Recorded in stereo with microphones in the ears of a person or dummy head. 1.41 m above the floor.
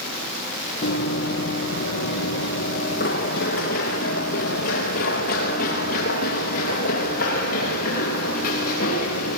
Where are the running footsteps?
55° left (ahead or behind), 3.5 m; by 9.4 s 40° left (ahead or behind), 10 m.